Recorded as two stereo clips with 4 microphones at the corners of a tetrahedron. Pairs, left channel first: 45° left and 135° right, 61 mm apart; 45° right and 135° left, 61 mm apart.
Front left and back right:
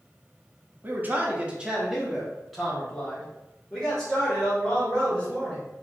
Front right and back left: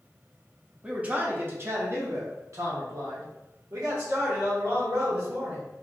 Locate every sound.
0.8 s a man speaking: 165° right, 0.7 m; by 5.6 s 120° left, 2.5 m